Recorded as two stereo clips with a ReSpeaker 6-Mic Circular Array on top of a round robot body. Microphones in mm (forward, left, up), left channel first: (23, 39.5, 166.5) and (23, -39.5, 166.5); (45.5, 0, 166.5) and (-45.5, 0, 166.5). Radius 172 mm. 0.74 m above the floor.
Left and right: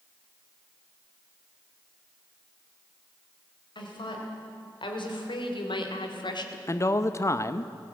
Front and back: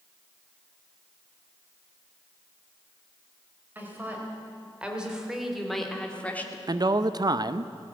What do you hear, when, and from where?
3.8 s a woman speaking: 110° left, 4.5 m; by 6.6 s 70° left, 2 m
6.7 s a man speaking: 140° left, 0.8 m